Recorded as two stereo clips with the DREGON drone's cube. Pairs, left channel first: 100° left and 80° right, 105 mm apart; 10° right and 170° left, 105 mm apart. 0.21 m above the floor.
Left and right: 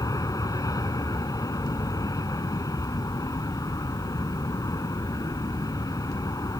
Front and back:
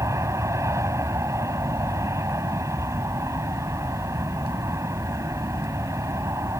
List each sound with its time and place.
0.0 s an aircraft: 125° left